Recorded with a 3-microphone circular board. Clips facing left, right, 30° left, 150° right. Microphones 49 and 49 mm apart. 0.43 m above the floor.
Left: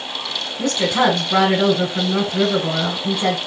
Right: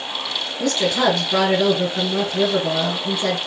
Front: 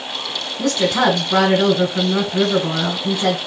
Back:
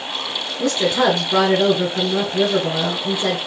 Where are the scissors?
No scissors in this recording.